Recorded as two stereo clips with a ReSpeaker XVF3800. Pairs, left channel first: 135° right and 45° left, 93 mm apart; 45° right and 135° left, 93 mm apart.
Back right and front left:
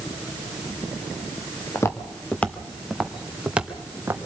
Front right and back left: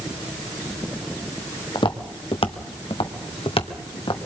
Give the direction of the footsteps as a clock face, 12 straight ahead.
3 o'clock.